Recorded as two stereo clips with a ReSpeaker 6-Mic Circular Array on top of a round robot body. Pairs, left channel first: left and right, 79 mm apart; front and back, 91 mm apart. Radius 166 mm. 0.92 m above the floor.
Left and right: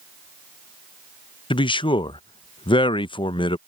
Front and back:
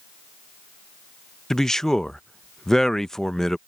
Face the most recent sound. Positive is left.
turn(degrees=85)